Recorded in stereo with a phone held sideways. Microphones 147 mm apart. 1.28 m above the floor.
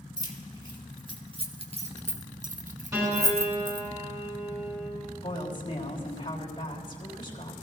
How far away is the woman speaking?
About 3 m.